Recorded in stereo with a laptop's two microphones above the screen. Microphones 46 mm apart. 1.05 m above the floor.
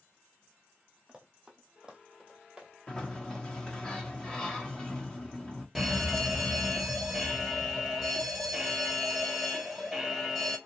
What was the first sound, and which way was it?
Running footsteps, 20° right (ahead or behind).